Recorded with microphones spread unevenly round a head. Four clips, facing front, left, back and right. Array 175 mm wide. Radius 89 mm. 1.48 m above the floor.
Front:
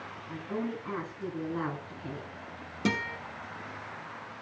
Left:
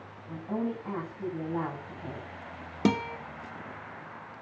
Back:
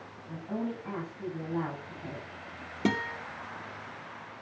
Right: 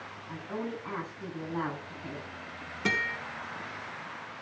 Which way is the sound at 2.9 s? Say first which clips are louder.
Left 6 dB, back 2 dB; 110° left.